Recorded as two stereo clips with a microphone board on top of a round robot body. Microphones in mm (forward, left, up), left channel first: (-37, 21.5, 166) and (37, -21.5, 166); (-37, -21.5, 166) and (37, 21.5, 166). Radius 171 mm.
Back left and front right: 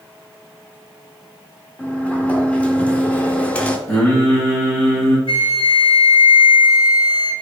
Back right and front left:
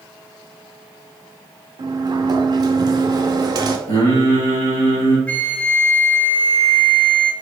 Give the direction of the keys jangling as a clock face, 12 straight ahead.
No keys jangling in this recording.